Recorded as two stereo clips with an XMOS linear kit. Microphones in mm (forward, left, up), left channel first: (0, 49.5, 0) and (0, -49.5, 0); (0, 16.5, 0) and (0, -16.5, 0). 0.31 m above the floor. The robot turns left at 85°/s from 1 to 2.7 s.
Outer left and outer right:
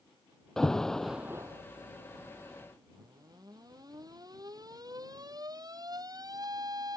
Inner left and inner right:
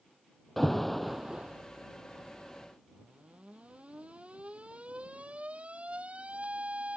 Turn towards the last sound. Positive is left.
turn(degrees=-40)  # may be behind; listen again after turning